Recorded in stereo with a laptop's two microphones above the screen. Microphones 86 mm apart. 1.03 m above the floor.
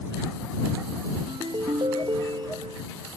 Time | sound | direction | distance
1.3 | a ringtone | 65° right (ahead or behind) | ?